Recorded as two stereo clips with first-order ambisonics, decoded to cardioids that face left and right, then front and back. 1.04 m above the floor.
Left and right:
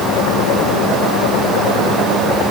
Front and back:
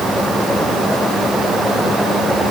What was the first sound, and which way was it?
Only background noise.